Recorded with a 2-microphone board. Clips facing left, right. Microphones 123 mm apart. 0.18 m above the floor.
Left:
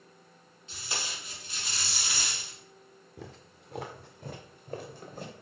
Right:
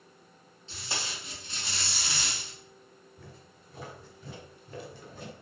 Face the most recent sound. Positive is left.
turn(degrees=35)  # may be behind; listen again after turning